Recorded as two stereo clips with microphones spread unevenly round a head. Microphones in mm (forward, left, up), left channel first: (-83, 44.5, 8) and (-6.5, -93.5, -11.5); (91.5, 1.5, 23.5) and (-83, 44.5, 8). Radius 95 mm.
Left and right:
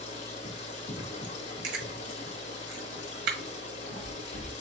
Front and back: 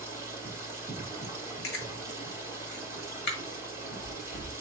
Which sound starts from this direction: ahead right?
Chewing, at 1.6 s.